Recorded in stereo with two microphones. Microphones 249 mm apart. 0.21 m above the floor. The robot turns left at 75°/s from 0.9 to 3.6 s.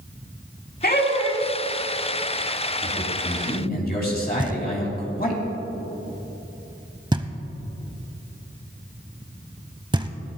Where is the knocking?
20° right (ahead or behind), 0.7 m.